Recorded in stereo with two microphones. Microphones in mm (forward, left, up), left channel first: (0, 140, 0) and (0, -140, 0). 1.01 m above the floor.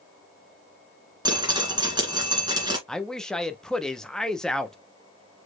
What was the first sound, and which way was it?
Dripping, 15° right (ahead or behind).